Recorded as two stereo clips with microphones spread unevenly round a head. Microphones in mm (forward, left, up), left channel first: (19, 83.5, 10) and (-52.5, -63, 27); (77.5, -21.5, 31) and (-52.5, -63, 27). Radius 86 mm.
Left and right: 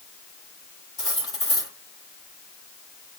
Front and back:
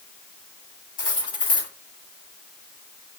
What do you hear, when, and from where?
1.0 s cutlery clinking: 5° right, 4.5 m